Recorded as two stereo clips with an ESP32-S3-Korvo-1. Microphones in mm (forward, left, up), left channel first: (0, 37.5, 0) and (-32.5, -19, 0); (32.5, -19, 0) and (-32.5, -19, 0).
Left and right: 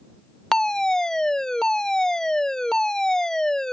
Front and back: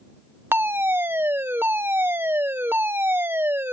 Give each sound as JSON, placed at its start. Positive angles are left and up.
{"t": 0.5, "sound": "a fire alarm", "azimuth_deg": 140}